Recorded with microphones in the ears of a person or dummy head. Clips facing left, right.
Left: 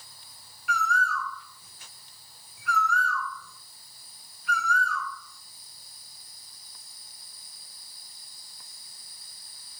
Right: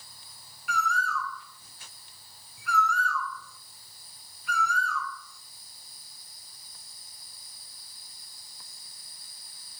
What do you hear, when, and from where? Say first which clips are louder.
0.7 s a bird: left 2 dB; 80° right, 0.5 m